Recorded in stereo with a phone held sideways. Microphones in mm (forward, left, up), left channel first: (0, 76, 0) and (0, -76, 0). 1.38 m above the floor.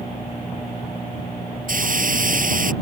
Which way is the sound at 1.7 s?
65° right (ahead or behind).